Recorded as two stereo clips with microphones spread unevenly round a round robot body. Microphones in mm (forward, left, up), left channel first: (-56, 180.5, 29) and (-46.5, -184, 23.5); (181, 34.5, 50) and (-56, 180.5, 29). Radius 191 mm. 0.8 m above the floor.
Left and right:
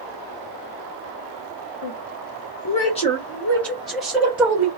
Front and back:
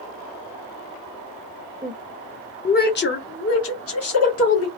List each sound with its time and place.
1.8 s a woman speaking: 75° left, 0.7 m; by 4.7 s 5° right, 1.8 m